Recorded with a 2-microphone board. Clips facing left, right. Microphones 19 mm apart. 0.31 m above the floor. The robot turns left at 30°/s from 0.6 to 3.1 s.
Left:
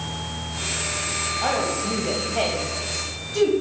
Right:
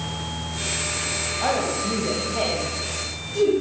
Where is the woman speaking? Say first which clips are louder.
Right 1 dB; centre (ahead or behind), 1.7 m; by 3.5 s 35° left (ahead or behind), 1.7 m.